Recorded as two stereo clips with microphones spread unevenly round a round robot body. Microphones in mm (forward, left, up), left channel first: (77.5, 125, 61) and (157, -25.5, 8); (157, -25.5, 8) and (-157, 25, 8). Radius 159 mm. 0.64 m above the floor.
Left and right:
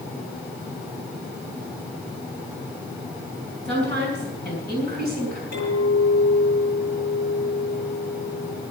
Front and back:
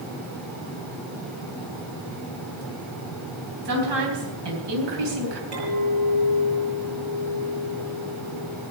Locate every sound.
3.6 s a woman speaking: 170° right, 4 m; by 5.4 s 170° left, 3.5 m
5.5 s a clink: 155° left, 7 m